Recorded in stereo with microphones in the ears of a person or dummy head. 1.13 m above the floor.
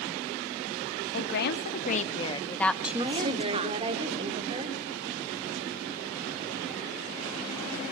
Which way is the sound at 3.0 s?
30° right (ahead or behind).